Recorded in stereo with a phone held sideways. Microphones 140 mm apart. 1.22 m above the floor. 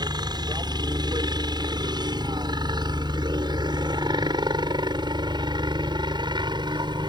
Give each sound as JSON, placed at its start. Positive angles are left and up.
{"t": 0.0, "sound": "a helicopter", "side_deg": -30}